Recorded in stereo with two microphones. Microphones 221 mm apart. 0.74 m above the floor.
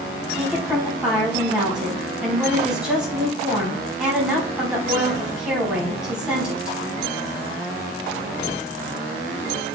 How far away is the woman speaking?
About 4.5 m.